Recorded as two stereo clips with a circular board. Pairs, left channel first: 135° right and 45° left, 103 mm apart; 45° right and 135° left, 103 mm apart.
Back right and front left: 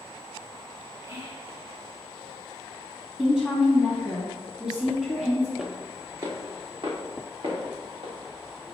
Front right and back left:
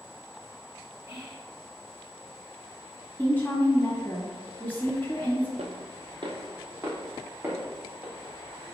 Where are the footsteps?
130° left, 0.8 m; by 8.1 s 55° left, 2 m.